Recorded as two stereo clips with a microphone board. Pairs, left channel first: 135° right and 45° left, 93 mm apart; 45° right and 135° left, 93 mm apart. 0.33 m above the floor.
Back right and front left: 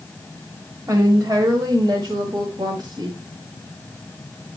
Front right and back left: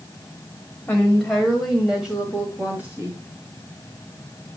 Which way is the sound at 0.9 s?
20° left.